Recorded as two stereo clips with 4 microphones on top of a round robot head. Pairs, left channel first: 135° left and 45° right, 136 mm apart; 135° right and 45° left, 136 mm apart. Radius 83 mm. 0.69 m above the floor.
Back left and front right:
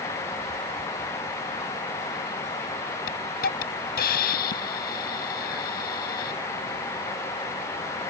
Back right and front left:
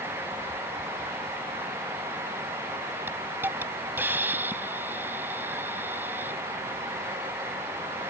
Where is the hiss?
120° left.